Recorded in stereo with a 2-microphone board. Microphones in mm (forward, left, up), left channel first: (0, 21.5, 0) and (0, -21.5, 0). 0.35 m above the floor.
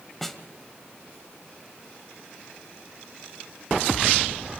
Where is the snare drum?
5° left (ahead or behind), 1.4 m.